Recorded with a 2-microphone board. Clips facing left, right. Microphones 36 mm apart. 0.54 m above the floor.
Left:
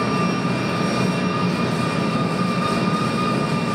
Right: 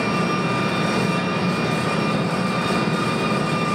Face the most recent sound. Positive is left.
turn(degrees=-65)  # may be behind; listen again after turning